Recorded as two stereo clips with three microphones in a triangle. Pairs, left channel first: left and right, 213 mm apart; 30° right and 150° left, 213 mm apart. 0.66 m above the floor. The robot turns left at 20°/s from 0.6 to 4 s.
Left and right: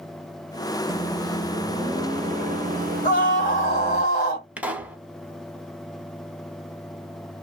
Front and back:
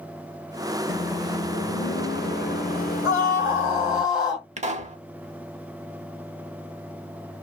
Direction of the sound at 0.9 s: 15° right.